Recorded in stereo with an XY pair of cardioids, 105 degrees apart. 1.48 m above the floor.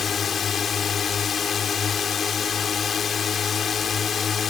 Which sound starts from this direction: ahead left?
A drone, at 0.0 s.